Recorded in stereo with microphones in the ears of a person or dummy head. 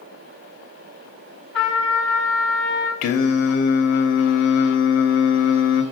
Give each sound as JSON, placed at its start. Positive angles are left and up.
{"t": 1.5, "sound": "a trumpet", "side_deg": 5, "distance_m": 1.2}
{"t": 3.0, "sound": "singing", "side_deg": 45, "distance_m": 0.6}